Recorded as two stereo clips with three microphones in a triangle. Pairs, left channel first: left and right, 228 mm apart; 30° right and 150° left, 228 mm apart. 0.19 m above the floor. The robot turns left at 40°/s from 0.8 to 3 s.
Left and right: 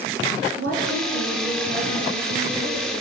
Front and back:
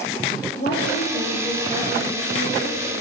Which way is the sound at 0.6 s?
75° right.